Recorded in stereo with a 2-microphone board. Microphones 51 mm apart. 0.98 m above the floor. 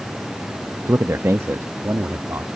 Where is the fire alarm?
I don't hear a fire alarm.